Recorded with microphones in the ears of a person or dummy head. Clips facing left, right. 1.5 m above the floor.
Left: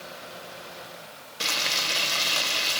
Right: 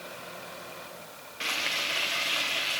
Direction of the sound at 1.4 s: 65° left (ahead or behind).